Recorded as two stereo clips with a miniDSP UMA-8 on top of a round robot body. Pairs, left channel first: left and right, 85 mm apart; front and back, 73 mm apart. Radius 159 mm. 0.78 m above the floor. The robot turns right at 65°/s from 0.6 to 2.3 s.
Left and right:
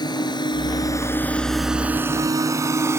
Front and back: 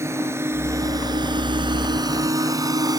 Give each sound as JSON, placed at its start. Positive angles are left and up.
{"t": 0.0, "sound": "a drone", "azimuth_deg": 125}